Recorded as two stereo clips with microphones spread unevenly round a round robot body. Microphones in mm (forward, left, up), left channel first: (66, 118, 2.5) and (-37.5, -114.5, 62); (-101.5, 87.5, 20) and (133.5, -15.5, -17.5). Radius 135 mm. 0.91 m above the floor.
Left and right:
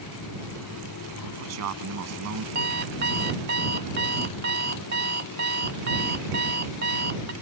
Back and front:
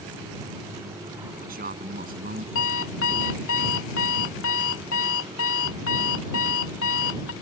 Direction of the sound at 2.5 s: 165° right.